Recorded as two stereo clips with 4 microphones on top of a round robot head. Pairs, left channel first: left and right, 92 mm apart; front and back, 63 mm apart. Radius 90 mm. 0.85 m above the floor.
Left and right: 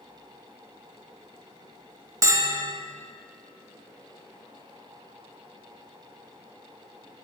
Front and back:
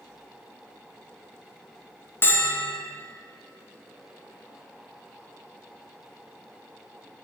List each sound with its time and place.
2.2 s a bell: 45° right, 1.0 m